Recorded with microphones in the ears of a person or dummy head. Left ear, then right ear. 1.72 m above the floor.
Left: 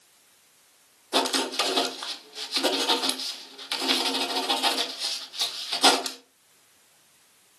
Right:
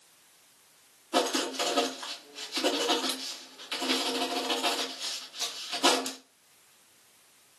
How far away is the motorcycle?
No motorcycle in this recording.